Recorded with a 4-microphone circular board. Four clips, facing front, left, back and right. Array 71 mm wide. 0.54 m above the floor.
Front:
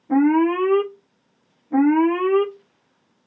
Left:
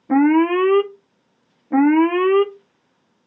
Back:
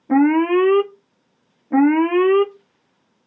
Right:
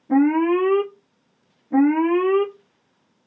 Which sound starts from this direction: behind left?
An alarm, at 0.1 s.